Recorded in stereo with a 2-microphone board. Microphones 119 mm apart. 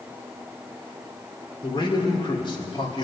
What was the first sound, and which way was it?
A man speaking, 45° left (ahead or behind).